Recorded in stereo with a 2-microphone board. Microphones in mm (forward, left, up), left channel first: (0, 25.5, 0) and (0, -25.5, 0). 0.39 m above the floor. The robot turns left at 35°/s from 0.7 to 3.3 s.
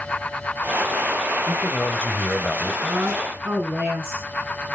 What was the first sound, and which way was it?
A man speaking, 60° left.